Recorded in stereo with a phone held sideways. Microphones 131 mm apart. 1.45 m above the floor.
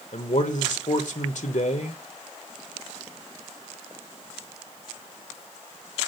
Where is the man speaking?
70° left (ahead or behind), 1.1 m.